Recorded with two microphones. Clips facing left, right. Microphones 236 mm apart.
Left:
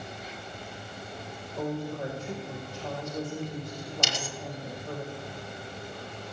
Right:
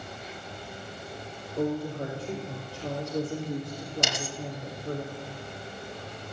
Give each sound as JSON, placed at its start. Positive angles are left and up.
{"t": 1.6, "sound": "a woman speaking", "side_deg": -35, "distance_m": 3.0}
{"t": 4.0, "sound": "a dropped coin", "side_deg": -60, "distance_m": 1.2}